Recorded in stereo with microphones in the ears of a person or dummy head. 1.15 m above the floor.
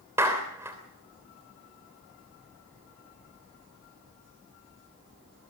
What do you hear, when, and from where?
0.2 s a clap: 15° right (ahead or behind), 3 m